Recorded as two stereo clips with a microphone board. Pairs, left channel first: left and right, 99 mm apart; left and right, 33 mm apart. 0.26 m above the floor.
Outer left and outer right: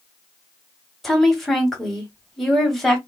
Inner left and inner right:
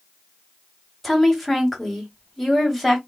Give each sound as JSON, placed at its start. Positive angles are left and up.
{"t": 1.0, "sound": "a woman speaking", "side_deg": 0, "distance_m": 1.2}